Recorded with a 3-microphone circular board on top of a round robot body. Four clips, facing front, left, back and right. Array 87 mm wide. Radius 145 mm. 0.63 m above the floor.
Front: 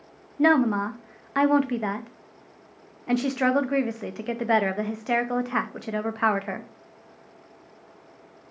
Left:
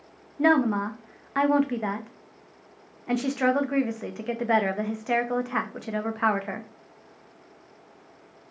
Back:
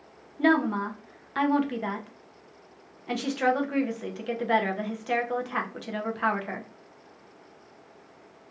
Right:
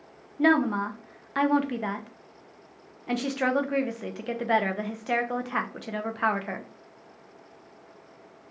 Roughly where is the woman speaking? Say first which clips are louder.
Left 1 dB, front 3 dB; ahead.